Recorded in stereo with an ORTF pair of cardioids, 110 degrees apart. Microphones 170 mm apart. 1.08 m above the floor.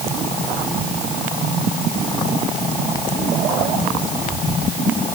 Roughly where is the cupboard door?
I don't hear a cupboard door.